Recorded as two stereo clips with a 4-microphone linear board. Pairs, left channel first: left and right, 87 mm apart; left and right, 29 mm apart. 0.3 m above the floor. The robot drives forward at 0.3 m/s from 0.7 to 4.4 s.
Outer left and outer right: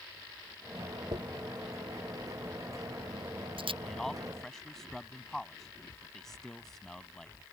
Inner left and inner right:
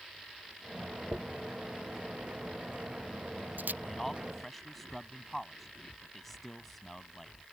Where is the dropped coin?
85° right; by 3.7 s 80° right.